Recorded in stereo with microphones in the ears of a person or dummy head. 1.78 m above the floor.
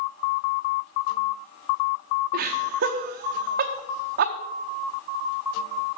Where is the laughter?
60° right (ahead or behind), 1.0 m.